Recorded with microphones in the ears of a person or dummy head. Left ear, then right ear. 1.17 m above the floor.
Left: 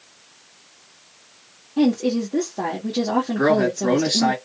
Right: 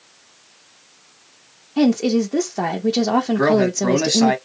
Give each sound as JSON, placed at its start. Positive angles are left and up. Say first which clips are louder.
{"t": 1.8, "sound": "a woman speaking", "louder": "right 3 dB", "side_deg": -60, "distance_m": 0.7}
{"t": 3.4, "sound": "a man speaking", "louder": "even", "side_deg": -70, "distance_m": 1.3}